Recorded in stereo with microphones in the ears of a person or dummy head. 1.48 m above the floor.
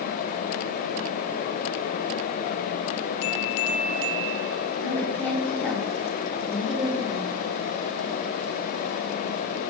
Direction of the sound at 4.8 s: 10° left (ahead or behind).